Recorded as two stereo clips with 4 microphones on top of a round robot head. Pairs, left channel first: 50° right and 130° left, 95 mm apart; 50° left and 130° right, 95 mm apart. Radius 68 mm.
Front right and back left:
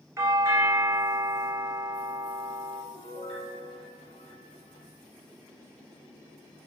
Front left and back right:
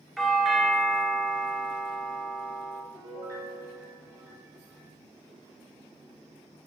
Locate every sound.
0.2 s a doorbell: 140° left, 1.6 m
2.9 s a piano: 70° right, 3 m